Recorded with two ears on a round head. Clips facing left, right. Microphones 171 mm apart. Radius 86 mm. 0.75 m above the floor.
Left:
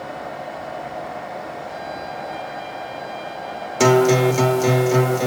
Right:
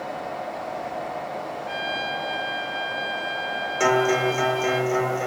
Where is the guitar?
45° left (ahead or behind), 0.7 m.